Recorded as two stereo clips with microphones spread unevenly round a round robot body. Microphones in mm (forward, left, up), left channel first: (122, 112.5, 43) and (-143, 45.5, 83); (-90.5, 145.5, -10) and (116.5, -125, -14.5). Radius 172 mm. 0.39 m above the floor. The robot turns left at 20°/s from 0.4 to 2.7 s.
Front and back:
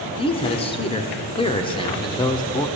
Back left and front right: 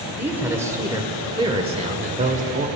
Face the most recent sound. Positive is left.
turn(degrees=-25)